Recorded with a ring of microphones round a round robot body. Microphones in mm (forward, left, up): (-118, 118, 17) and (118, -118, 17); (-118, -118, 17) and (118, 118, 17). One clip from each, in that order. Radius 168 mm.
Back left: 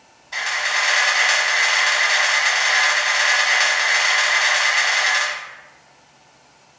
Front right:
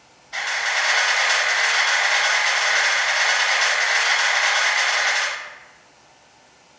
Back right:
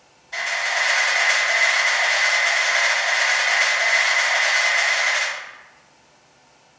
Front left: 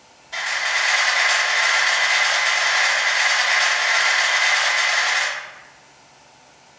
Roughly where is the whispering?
I don't hear whispering.